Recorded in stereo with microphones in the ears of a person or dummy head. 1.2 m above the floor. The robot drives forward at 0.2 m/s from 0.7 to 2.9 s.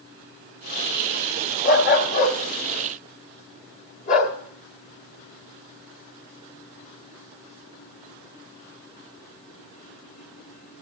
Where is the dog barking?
45° left (ahead or behind), 0.9 m; by 4.3 s 40° left (ahead or behind), 0.9 m.